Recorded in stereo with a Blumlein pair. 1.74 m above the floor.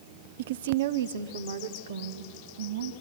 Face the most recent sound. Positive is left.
turn(degrees=-65)